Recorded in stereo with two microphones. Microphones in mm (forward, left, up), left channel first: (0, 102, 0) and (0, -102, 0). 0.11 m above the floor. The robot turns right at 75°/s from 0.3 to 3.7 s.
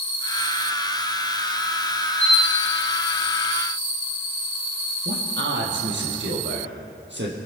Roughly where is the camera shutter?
Centre.